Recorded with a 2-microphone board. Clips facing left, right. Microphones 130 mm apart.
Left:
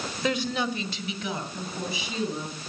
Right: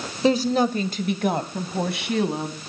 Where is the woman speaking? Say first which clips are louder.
Right 9 dB; 30° right (ahead or behind), 1.4 m; by 2.6 s 70° right (ahead or behind), 3 m.